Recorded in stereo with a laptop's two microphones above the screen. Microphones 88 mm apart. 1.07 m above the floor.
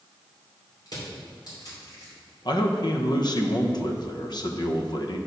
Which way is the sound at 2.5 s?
55° left (ahead or behind).